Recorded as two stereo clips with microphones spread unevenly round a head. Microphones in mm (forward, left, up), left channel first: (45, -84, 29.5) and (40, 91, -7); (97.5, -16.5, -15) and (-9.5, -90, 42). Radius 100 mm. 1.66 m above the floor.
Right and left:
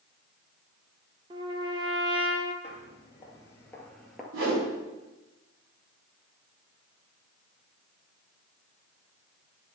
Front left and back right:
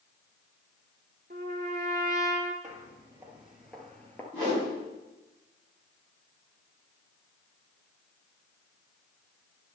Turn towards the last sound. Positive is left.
turn(degrees=120)